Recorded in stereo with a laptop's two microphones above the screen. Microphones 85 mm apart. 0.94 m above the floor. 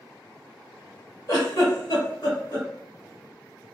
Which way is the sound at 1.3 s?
45° left (ahead or behind).